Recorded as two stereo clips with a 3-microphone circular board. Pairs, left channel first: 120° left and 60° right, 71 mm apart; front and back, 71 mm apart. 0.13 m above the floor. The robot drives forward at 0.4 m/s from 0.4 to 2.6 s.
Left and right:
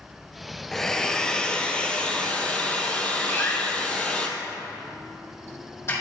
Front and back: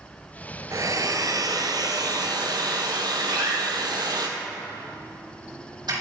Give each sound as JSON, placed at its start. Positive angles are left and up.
{"t": 0.7, "sound": "a hair dryer", "azimuth_deg": -155, "distance_m": 0.9}
{"t": 3.3, "sound": "a door slam", "azimuth_deg": 170, "distance_m": 4.5}